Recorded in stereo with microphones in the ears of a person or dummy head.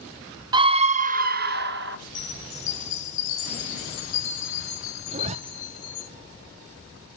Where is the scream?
25° right (ahead or behind), 0.5 m; by 2.0 s 65° right (ahead or behind), 1.0 m.